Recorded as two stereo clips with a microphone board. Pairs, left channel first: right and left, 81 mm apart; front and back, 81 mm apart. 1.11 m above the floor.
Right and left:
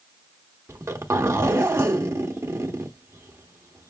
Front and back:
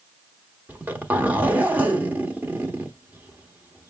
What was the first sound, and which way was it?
A zipper, 125° left.